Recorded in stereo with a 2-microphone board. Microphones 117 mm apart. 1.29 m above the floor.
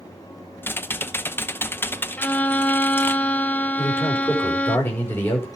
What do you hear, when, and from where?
0.6 s typing on a keyboard: 20° left (ahead or behind), 0.6 m
2.2 s a violin: 15° left (ahead or behind), 0.5 m
3.8 s a man speaking: 20° left (ahead or behind), 5.5 m